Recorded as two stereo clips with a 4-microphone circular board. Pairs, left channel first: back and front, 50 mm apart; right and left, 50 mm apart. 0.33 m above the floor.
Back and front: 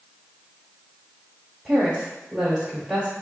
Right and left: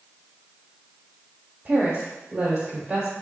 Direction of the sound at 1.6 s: 75° left.